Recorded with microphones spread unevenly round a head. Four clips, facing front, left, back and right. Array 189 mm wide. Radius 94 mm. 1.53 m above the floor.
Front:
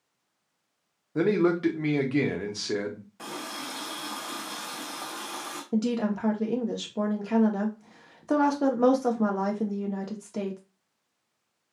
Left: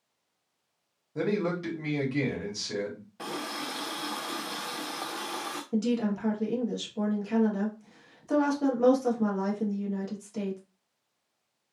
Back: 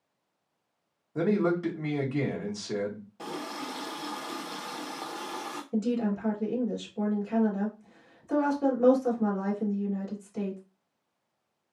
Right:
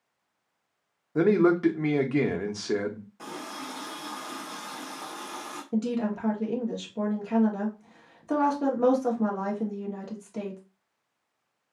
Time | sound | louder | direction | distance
1.1 | a man speaking | right 8 dB, front 3 dB | 55° right | 0.9 m
3.2 | a running tap | left 4 dB, back 2 dB | 120° left | 0.5 m
5.7 | a woman speaking | even, front 2 dB | 15° right | 1.1 m